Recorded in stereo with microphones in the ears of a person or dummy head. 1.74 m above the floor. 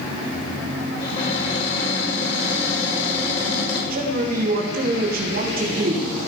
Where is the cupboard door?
35° left (ahead or behind), 5.5 m.